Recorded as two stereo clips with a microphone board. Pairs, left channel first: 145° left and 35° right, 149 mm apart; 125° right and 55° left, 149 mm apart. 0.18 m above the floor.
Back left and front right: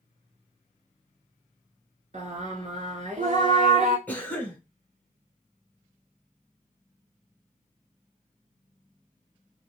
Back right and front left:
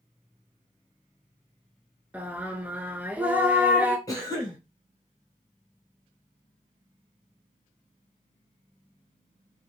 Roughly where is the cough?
Behind right.